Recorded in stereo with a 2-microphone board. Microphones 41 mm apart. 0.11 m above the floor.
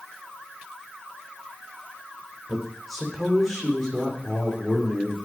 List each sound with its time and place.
2.5 s a man speaking: centre (ahead or behind), 4.5 m; by 5.2 s 15° left (ahead or behind), 7 m